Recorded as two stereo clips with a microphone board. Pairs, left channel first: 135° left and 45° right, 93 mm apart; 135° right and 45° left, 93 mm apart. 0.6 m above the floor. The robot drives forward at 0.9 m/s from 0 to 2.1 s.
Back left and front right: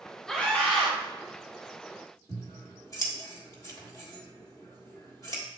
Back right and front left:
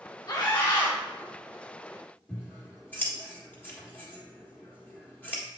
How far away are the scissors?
About 1.6 m.